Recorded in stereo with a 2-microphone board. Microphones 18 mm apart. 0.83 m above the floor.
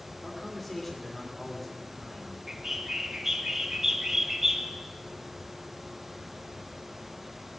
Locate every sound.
0.2 s a man speaking: 15° left (ahead or behind), 3 m
2.5 s a bird: 15° right (ahead or behind), 1.3 m